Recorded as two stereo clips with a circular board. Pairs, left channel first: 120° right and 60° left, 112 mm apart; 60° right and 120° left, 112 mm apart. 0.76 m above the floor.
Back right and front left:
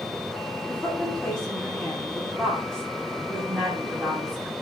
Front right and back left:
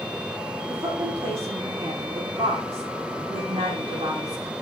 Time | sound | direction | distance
0.7 | a woman speaking | 155° left | 6.5 m